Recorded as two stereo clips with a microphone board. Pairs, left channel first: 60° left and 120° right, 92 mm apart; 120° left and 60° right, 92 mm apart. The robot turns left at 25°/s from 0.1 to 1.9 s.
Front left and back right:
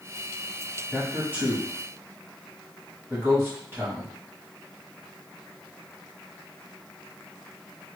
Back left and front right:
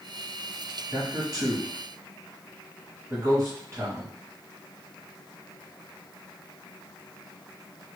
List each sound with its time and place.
0.9 s a man speaking: 50° right, 1.2 m; by 4.1 s 75° right, 1.2 m